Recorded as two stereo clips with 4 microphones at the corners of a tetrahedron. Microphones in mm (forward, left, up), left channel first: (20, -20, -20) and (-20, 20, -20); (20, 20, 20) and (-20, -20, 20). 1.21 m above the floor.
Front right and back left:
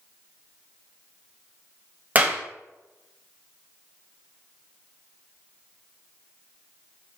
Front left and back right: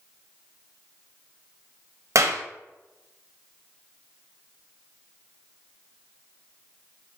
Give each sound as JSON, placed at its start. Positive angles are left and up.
{"t": 2.1, "sound": "a clap", "azimuth_deg": -165, "distance_m": 0.6}